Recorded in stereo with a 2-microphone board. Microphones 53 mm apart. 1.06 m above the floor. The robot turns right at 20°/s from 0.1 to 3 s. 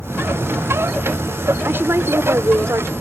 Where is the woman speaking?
45° right (ahead or behind); by 2.9 s 70° right (ahead or behind).